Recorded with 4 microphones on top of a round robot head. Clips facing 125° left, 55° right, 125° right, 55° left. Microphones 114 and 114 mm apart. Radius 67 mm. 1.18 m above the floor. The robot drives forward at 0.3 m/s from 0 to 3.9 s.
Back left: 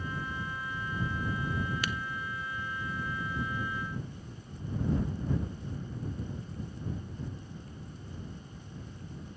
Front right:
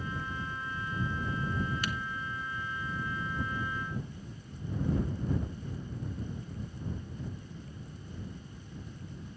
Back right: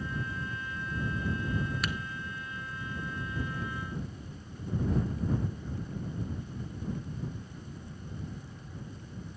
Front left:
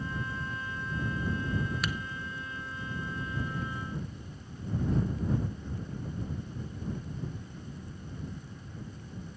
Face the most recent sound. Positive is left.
turn(degrees=160)